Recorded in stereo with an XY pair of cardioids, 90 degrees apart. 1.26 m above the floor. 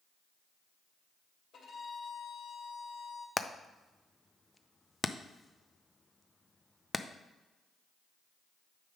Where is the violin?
65° left, 3 m.